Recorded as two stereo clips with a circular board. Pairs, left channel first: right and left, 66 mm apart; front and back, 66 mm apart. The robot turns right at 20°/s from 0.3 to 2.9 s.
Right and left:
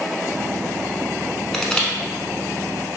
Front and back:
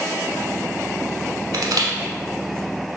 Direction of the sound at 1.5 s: 175° right.